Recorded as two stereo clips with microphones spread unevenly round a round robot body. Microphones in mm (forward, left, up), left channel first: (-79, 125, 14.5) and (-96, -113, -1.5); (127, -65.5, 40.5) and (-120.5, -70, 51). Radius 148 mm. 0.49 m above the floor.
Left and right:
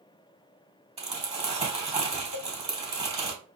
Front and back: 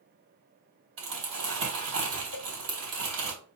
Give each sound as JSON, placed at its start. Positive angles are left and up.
{"t": 1.0, "sound": "crumpling", "azimuth_deg": -155, "distance_m": 3.5}
{"t": 2.3, "sound": "a cowbell", "azimuth_deg": 30, "distance_m": 0.6}